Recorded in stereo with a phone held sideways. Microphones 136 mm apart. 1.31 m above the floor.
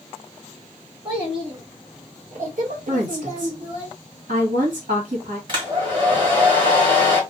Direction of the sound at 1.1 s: 30° right (ahead or behind).